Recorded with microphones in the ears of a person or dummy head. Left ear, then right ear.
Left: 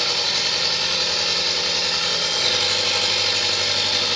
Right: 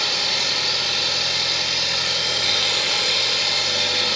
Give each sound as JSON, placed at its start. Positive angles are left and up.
{"t": 0.0, "sound": "an engine running", "side_deg": 35, "distance_m": 1.5}